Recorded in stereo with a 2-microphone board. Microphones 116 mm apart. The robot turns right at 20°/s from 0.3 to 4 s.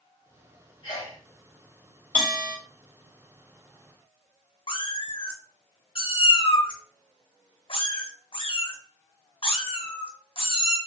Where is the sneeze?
45° left (ahead or behind), 1.1 m; by 1.2 s 50° left (ahead or behind), 1.1 m.